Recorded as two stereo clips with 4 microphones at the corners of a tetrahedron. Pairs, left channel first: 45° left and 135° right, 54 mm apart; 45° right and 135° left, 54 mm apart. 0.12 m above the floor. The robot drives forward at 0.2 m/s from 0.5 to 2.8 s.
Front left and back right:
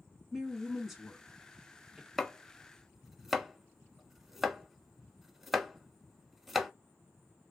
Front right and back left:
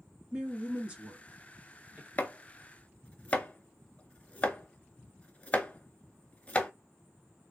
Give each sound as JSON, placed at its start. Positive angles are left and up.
{"t": 0.3, "sound": "a woman speaking", "azimuth_deg": 130, "distance_m": 1.2}
{"t": 2.2, "sound": "chopping", "azimuth_deg": -35, "distance_m": 0.6}